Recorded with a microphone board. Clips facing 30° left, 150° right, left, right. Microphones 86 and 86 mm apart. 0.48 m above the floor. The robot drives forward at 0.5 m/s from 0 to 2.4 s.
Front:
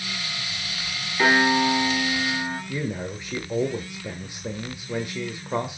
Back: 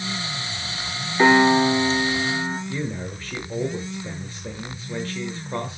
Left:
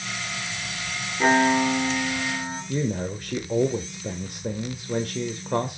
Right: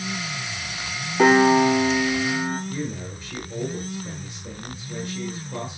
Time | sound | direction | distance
1.2 | a piano | 85° right | 3.5 m
2.7 | a man speaking | 105° left | 1.3 m